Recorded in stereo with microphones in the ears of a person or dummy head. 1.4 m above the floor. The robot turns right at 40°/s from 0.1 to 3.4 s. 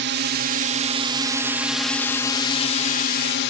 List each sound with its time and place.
0.0 s a drone: 70° right; by 3.5 s 65° left